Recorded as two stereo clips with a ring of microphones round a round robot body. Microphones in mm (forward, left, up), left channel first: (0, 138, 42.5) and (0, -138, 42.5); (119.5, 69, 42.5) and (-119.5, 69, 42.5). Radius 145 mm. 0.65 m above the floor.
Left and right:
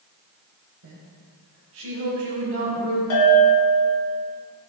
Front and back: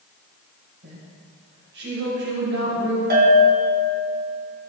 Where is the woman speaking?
130° right, 3 m.